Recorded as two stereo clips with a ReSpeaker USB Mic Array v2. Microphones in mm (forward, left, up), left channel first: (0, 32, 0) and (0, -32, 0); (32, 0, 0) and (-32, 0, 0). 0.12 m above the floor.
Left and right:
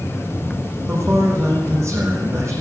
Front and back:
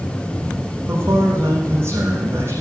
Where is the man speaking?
130° right, 5 m.